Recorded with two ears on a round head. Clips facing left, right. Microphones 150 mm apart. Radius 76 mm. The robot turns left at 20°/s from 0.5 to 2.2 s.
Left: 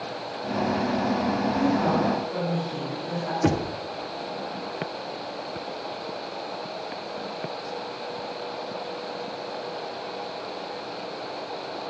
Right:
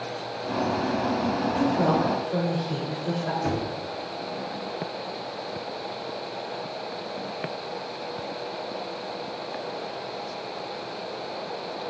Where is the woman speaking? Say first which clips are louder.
Right 1 dB; 70° right (ahead or behind), 3 m; by 3.3 s 60° right (ahead or behind), 3 m.